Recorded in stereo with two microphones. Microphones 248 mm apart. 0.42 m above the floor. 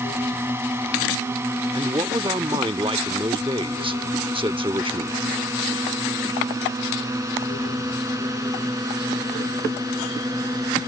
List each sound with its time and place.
0.0 s a drone: 10° right (ahead or behind); by 10.9 s 15° right (ahead or behind)
1.7 s a man speaking: 20° right (ahead or behind)